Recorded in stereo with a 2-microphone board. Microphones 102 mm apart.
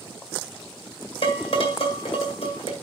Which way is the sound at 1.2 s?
80° left.